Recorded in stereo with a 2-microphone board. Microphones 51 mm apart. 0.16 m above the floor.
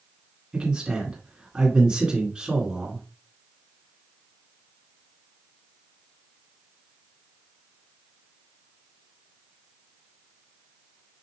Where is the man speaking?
15° right (ahead or behind), 2 m.